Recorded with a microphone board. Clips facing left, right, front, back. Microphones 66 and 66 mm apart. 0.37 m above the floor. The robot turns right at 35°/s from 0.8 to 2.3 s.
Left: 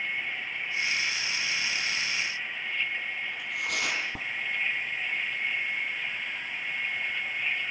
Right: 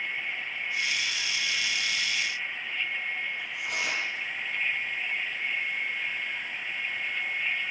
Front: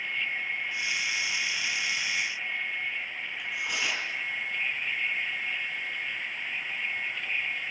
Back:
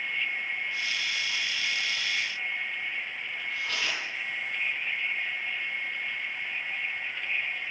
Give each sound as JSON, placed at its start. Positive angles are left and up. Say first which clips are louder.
{"t": 3.3, "sound": "tearing paper", "louder": "left 1 dB, even", "azimuth_deg": 75, "distance_m": 6.0}